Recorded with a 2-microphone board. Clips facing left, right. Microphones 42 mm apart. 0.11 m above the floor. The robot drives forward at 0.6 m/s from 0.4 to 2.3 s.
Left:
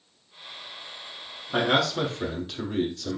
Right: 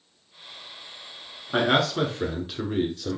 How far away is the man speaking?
About 1.1 m.